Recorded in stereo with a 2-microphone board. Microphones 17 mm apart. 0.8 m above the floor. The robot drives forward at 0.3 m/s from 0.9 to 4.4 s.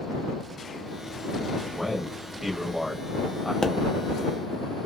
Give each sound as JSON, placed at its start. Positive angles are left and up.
{"t": 1.7, "sound": "a man speaking", "side_deg": -20, "distance_m": 1.2}
{"t": 3.6, "sound": "a pop", "side_deg": 35, "distance_m": 0.5}